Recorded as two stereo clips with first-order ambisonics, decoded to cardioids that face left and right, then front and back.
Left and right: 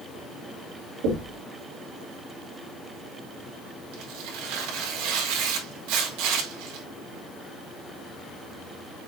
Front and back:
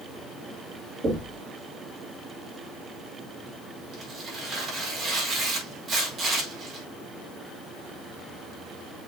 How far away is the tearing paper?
About 4 m.